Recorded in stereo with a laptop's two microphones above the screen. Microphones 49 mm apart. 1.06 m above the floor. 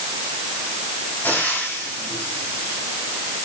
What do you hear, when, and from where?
1.2 s frying: 35° left (ahead or behind), 7.5 m